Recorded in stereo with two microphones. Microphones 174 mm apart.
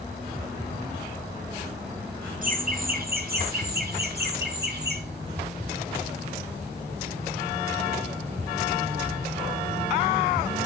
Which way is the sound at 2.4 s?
50° right (ahead or behind).